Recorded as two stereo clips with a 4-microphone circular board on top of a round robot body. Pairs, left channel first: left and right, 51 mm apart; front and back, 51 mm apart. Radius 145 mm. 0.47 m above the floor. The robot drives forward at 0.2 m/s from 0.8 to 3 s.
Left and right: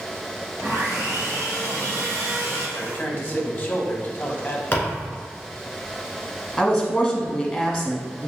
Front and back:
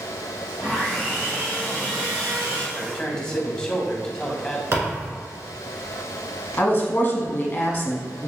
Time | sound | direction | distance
0.6 | sawing | 110° right | 2.0 m
2.8 | a man speaking | 60° left | 0.8 m
4.7 | a thud | 145° left | 1.4 m
6.6 | a woman speaking | 20° left | 1.0 m